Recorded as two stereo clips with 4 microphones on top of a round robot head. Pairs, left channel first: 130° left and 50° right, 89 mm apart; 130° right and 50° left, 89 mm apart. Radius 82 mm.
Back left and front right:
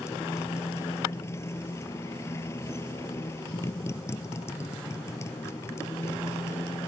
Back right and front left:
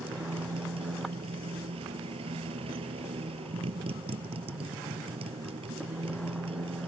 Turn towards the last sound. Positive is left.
turn(degrees=70)